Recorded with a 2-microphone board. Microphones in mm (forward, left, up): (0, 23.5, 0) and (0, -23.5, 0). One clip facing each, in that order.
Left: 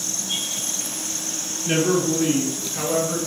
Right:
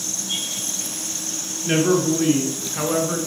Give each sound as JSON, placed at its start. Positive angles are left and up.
{"t": 1.6, "sound": "a man speaking", "side_deg": -25, "distance_m": 2.5}